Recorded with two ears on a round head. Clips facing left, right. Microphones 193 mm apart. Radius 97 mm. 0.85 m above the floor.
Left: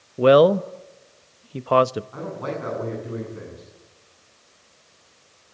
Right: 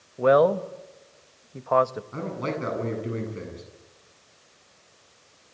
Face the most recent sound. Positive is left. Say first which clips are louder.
# even
turn(degrees=-35)  # may be behind; listen again after turning